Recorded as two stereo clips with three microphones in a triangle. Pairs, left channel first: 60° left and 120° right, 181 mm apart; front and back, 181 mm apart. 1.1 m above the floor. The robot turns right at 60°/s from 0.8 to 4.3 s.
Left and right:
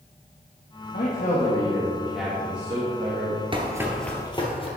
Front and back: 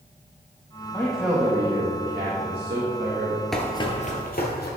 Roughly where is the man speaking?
Left.